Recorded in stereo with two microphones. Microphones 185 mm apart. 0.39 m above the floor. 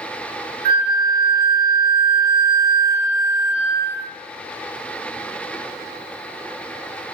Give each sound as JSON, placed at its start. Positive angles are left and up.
{"t": 0.7, "sound": "a flute", "side_deg": -70, "distance_m": 0.7}